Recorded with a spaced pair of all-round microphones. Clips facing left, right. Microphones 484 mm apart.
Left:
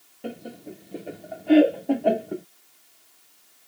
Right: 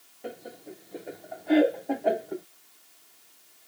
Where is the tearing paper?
No tearing paper in this recording.